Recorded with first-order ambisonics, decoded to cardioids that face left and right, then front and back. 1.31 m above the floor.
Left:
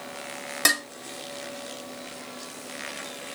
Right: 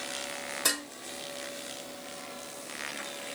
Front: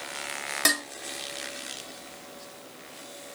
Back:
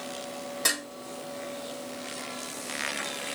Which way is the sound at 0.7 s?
60° left.